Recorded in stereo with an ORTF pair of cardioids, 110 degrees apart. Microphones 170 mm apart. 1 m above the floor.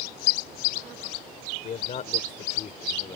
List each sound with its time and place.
1.6 s a man speaking: 45° left; by 3.2 s 35° left